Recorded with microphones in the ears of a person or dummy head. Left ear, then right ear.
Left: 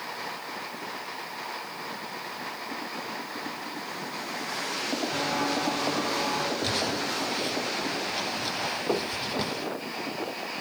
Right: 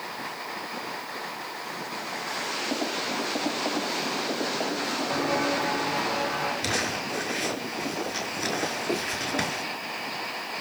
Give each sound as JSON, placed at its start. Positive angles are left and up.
{"t": 5.1, "sound": "footsteps", "side_deg": -45, "distance_m": 6.0}
{"t": 6.6, "sound": "crumpling", "side_deg": -50, "distance_m": 4.5}
{"t": 8.9, "sound": "knocking", "side_deg": 40, "distance_m": 1.3}